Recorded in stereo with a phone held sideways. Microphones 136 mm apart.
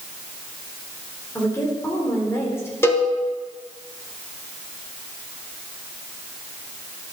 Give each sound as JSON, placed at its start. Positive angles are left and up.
{"t": 1.4, "sound": "a woman speaking", "side_deg": 20, "distance_m": 3.5}
{"t": 2.8, "sound": "a cowbell", "side_deg": 15, "distance_m": 2.0}